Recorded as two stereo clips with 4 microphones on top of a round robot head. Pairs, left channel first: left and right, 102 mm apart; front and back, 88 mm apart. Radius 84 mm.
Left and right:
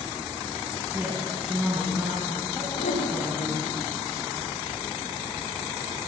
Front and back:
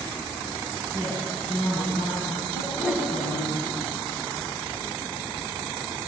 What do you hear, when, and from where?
0.9 s a woman speaking: 15° right, 7 m
2.6 s a whoosh: 70° left, 8 m